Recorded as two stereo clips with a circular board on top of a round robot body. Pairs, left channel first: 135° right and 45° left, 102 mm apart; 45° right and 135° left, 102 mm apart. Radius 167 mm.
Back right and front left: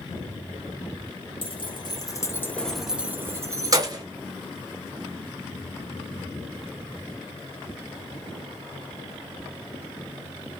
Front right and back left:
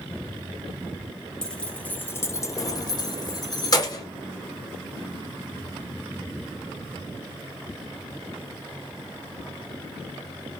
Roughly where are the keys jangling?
Behind right.